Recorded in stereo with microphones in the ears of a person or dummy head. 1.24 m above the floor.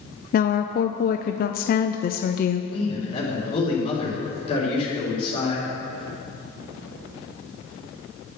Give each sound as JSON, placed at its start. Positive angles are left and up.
{"t": 0.3, "sound": "a woman speaking", "side_deg": 40, "distance_m": 0.5}
{"t": 2.7, "sound": "a man speaking", "side_deg": 30, "distance_m": 3.5}